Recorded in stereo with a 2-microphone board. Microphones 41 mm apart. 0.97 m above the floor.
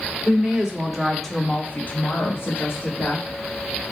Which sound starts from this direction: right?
A woman speaking, at 0.2 s.